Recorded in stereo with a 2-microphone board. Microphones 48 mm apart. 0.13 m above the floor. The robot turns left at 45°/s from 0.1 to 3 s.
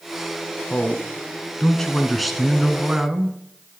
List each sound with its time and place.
0.7 s a man speaking: 25° left (ahead or behind), 1.1 m; by 3.4 s 15° right (ahead or behind), 1.1 m